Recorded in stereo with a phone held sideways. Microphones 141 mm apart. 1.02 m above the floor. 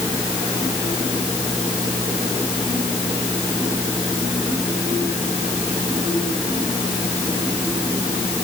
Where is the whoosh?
No whoosh in this recording.